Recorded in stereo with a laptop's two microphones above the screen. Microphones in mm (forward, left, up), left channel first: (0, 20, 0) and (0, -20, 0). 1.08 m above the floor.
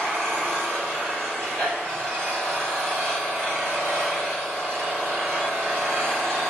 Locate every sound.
0.0 s an engine running: 40° right (ahead or behind), 1.7 m